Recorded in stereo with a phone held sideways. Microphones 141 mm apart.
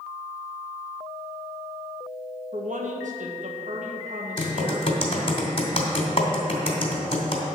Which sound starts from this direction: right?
A woman speaking, at 2.5 s.